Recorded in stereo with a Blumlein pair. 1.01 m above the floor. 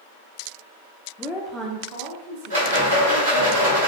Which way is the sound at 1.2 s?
15° left.